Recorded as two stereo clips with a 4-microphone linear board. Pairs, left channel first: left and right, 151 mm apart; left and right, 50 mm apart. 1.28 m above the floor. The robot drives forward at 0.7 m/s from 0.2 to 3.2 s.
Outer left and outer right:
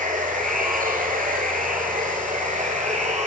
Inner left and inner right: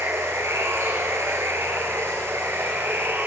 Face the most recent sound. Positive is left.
turn(degrees=-50)  # may be behind; listen again after turning